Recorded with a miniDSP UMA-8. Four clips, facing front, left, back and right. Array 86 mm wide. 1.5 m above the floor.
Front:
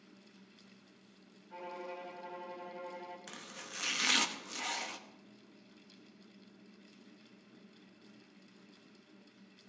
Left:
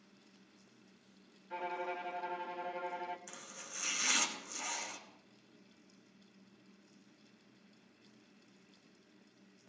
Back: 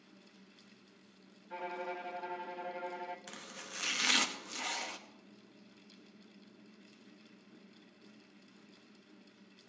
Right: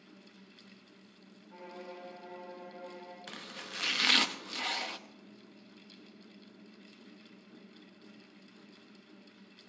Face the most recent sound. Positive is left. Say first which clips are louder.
# right 6 dB, even
turn(degrees=-90)